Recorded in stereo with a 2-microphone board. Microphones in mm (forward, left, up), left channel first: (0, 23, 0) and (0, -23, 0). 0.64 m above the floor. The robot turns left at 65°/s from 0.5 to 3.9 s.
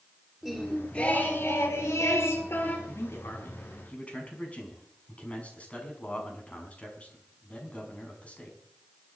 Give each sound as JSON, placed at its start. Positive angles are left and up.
{"t": 0.4, "sound": "singing", "azimuth_deg": -170, "distance_m": 4.5}
{"t": 2.9, "sound": "a man speaking", "azimuth_deg": 95, "distance_m": 5.5}